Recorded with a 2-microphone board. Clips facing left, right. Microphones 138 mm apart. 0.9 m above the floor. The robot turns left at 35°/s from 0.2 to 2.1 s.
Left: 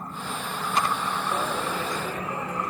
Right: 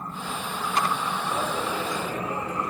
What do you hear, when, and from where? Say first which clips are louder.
1.3 s a dropped coin: right 1 dB; centre (ahead or behind), 4.5 m; by 2.7 s 30° right (ahead or behind), 4.5 m